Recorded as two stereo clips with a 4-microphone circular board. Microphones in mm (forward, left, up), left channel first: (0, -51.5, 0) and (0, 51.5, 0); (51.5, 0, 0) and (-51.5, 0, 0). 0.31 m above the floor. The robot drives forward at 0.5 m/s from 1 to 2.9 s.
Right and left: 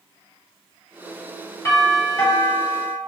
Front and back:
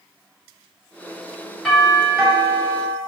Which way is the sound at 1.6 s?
80° right.